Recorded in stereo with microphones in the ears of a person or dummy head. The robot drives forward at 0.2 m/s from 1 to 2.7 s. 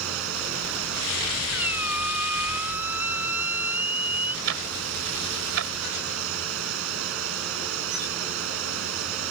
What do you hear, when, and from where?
0.0 s running water: 80° right
1.5 s a squeak: 10° right (ahead or behind)
4.5 s ticking: 75° right (ahead or behind)